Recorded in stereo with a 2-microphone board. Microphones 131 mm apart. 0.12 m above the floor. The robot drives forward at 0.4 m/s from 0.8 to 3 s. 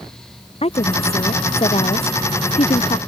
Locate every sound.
0.6 s a woman speaking: 50° left (ahead or behind); by 3.0 s 55° left (ahead or behind)